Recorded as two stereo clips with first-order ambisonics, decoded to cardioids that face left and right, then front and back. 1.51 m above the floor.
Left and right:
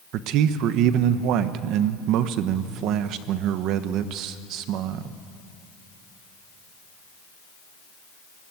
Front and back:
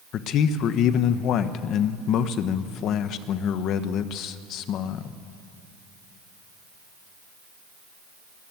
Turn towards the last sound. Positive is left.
turn(degrees=-50)